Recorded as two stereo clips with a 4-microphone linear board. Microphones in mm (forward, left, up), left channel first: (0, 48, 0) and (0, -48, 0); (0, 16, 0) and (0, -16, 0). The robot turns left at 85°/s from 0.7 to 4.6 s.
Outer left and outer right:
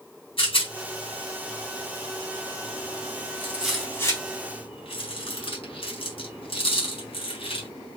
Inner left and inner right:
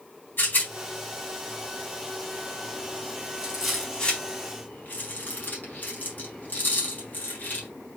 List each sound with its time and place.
0.4 s a rattle: 70° left (ahead or behind), 4 m